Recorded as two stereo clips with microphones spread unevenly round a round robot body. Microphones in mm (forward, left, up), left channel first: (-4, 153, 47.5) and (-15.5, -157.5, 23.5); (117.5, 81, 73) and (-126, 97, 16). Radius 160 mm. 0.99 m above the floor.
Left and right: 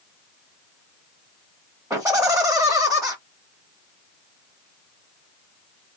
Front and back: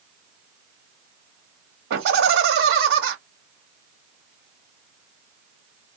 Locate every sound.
1.9 s laughter: 175° right, 1.1 m